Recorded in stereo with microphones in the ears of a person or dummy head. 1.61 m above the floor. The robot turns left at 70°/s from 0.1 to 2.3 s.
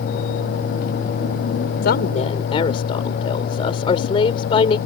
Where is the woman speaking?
70° left; by 4.8 s 35° left.